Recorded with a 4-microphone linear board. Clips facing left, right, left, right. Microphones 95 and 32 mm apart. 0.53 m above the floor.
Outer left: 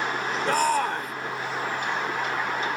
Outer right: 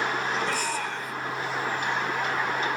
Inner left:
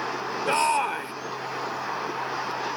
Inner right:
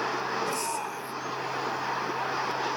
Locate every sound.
0.5 s a shout: 45° left (ahead or behind), 2 m